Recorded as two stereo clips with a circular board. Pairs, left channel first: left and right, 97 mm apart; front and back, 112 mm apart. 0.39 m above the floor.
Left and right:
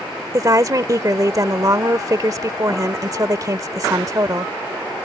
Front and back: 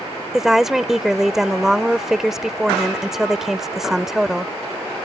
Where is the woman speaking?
95° right.